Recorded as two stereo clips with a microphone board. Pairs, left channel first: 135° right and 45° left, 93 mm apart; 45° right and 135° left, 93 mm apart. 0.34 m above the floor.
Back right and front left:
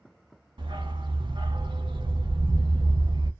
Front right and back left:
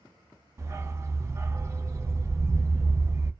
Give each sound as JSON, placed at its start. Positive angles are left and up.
{"t": 0.6, "sound": "a dog barking", "azimuth_deg": 75, "distance_m": 0.5}